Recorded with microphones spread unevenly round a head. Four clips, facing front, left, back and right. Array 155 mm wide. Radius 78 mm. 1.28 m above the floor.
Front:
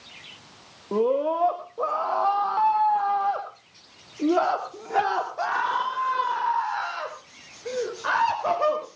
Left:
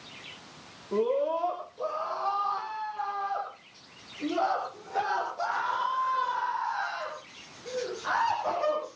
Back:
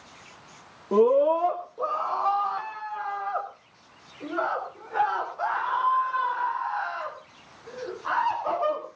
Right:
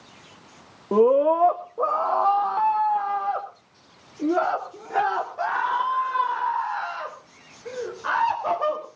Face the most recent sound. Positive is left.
turn(degrees=-10)